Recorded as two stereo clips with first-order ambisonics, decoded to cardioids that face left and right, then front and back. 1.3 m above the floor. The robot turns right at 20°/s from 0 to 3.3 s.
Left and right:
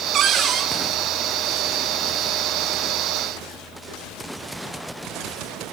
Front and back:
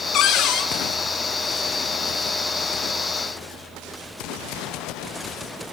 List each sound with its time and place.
0.1 s a cupboard door: 35° right, 1.5 m; by 0.7 s 25° right, 1.5 m